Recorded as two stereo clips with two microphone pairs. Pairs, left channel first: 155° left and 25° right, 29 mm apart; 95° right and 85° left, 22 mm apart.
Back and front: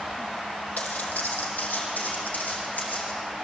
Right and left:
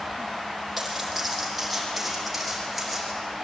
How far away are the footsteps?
About 4 m.